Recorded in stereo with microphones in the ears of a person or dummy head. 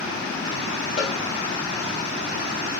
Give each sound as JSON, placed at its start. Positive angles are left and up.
{"t": 1.0, "sound": "a cowbell", "side_deg": 40, "distance_m": 0.9}